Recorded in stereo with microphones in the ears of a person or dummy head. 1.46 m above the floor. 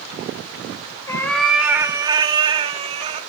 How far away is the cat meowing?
About 1.2 m.